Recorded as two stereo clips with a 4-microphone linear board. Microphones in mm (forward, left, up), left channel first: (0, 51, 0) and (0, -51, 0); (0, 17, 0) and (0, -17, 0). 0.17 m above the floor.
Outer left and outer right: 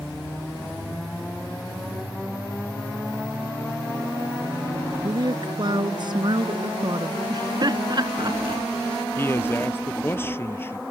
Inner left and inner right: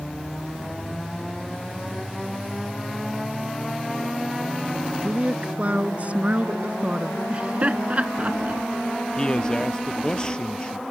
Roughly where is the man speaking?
Left.